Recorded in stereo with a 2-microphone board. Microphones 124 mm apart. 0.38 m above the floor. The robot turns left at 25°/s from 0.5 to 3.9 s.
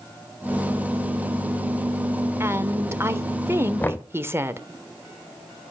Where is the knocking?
15° left (ahead or behind), 0.8 m.